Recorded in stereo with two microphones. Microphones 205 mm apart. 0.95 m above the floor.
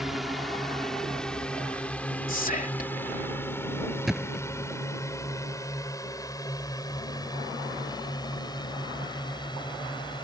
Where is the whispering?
40° left (ahead or behind).